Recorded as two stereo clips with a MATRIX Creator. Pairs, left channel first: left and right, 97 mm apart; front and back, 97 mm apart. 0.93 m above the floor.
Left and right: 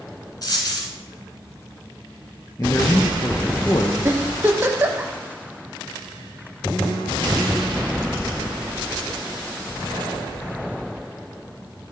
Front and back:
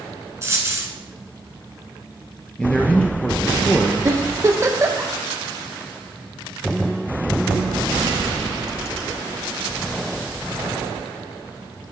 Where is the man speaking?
70° left, 0.6 m.